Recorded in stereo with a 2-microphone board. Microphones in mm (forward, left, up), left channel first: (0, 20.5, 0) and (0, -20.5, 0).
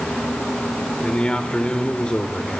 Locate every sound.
1.0 s a man speaking: 25° left (ahead or behind), 1.4 m